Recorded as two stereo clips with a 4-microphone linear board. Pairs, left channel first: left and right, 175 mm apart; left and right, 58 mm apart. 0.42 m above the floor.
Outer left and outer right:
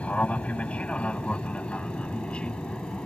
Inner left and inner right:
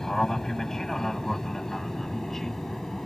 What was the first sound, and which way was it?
An aircraft, 5° left (ahead or behind).